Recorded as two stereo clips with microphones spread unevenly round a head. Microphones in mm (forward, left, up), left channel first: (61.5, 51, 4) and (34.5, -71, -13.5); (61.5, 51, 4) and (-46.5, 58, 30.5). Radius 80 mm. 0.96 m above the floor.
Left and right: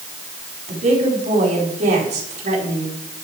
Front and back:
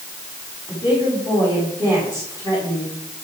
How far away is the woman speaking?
About 6 m.